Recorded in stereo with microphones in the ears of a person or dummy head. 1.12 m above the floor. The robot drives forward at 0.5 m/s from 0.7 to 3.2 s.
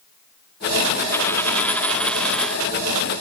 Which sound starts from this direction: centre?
A dropped coin, at 1.1 s.